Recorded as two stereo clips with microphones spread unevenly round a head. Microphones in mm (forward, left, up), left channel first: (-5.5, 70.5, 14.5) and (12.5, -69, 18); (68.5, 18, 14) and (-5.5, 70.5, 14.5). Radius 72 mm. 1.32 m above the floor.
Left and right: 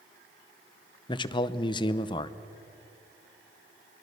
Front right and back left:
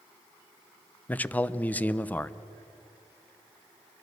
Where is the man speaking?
40° left, 0.8 m.